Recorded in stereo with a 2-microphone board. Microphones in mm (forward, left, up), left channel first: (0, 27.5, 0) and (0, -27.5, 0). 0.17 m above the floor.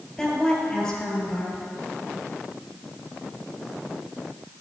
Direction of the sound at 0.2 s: 10° left (ahead or behind).